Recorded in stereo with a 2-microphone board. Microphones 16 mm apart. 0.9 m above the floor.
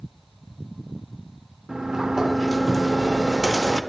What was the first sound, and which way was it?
A sliding door, 35° right (ahead or behind).